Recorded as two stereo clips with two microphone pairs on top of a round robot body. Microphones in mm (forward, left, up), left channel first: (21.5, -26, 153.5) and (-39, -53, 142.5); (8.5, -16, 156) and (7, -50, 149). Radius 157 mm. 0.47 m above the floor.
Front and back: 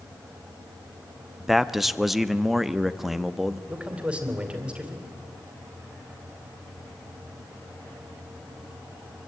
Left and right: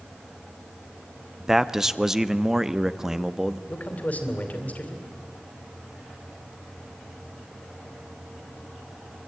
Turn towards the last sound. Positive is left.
turn(degrees=135)